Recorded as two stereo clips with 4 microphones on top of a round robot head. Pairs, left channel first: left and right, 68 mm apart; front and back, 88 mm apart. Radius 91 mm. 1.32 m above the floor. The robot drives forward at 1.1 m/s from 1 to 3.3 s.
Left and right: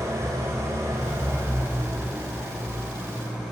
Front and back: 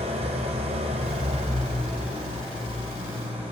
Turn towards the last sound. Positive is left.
turn(degrees=-170)